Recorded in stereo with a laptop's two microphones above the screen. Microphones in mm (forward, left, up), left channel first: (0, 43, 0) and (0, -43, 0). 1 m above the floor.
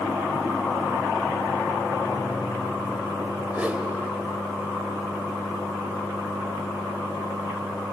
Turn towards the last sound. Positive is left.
turn(degrees=-15)  # may be behind; listen again after turning